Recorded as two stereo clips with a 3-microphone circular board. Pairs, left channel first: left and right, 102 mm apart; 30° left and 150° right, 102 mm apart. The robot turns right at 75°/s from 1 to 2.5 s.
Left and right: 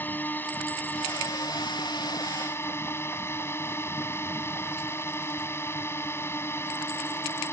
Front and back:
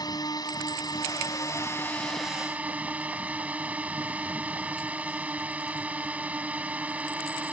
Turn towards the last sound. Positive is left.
turn(degrees=140)